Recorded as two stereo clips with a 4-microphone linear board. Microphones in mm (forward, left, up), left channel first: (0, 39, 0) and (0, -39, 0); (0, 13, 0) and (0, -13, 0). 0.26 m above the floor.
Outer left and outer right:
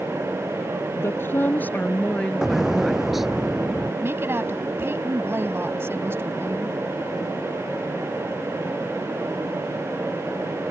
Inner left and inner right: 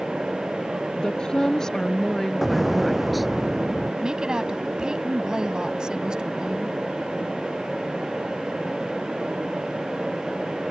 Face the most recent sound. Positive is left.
turn(degrees=-30)  # may be behind; listen again after turning